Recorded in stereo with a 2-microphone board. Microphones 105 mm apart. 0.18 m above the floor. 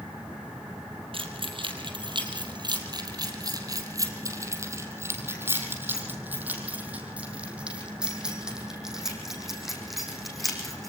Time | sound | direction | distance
1.1 | keys jangling | 55° right (ahead or behind) | 3 m